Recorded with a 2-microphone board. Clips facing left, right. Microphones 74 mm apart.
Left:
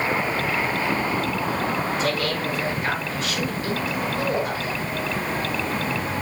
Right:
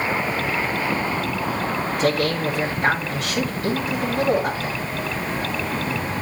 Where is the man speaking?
65° right (ahead or behind), 5 m.